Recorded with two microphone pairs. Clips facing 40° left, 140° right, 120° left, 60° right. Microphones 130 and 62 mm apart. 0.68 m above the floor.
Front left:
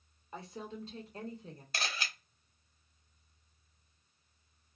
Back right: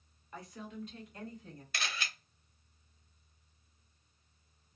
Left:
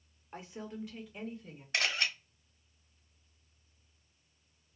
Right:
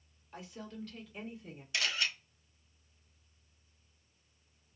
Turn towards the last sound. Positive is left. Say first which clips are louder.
# front left 1 dB, left 2 dB
turn(degrees=85)